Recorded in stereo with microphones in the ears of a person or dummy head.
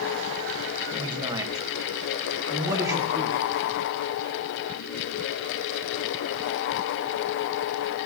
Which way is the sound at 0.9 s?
25° right (ahead or behind).